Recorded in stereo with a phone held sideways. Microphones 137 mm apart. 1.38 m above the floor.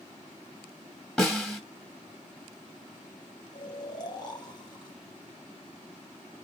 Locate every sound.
1.2 s a snare drum: 5° left (ahead or behind), 1.2 m
3.5 s snoring: 30° left (ahead or behind), 1.0 m